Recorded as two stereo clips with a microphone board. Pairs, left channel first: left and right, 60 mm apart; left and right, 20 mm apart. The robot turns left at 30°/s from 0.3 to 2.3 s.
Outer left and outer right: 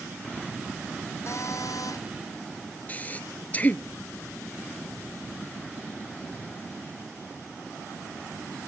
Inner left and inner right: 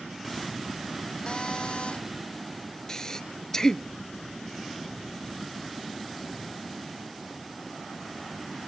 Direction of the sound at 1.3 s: 55° left (ahead or behind).